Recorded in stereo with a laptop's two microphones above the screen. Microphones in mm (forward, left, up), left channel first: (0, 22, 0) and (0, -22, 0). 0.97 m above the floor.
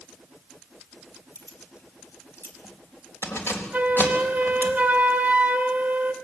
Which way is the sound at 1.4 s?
85° left.